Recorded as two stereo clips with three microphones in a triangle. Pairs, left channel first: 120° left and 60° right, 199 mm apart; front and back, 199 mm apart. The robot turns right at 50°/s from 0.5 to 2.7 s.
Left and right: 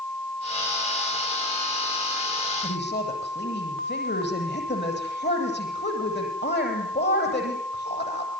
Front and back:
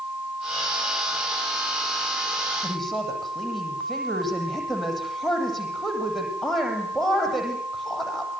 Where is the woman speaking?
85° left, 9.5 m; by 8.3 s 90° left, 9.5 m.